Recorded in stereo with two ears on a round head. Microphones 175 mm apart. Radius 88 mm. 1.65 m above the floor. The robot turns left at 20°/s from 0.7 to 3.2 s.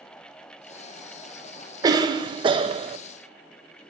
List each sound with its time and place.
1.8 s a cough: 20° right (ahead or behind), 0.6 m; by 3.0 s 30° right (ahead or behind), 0.6 m